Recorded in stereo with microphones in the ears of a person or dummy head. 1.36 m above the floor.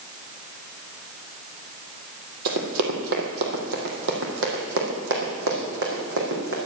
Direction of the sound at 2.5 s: 60° right (ahead or behind).